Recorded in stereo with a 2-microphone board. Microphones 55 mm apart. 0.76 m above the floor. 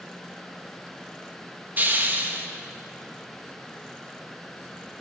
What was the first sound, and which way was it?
A hiss, 35° right (ahead or behind).